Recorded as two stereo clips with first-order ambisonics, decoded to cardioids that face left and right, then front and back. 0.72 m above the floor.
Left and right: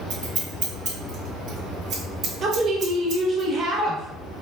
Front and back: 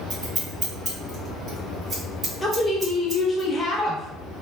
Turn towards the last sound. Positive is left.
turn(degrees=-70)